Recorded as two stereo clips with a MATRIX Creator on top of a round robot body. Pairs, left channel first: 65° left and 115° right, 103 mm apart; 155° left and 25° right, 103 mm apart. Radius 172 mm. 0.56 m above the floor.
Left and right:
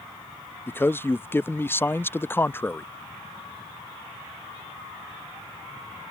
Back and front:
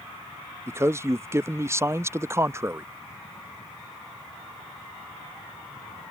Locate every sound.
0.7 s a man speaking: 15° left